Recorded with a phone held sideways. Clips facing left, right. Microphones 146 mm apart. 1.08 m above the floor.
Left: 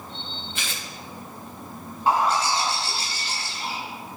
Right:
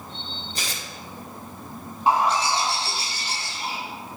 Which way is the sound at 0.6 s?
40° right (ahead or behind).